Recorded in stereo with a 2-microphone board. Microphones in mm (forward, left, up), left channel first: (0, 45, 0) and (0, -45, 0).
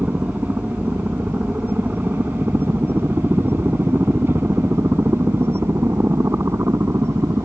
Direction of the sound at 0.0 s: 20° right (ahead or behind).